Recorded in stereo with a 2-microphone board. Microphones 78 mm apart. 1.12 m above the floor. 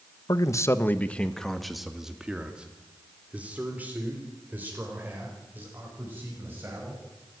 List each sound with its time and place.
0.3 s a man speaking: 55° left (ahead or behind), 1.1 m; by 7.0 s 30° right (ahead or behind), 7 m